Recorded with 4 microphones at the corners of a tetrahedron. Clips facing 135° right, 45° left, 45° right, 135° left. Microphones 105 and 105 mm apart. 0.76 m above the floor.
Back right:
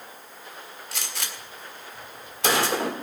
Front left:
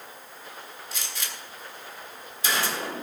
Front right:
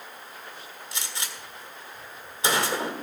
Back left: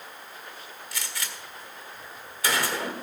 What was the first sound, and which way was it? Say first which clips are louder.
A gunshot: back right 3 dB, even; 110° right.